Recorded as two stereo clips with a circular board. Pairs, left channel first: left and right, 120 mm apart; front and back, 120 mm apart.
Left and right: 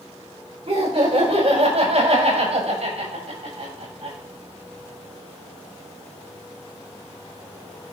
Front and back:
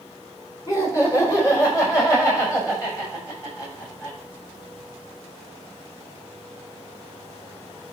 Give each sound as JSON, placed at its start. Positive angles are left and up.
{"t": 0.7, "sound": "laughter", "azimuth_deg": -55, "distance_m": 4.0}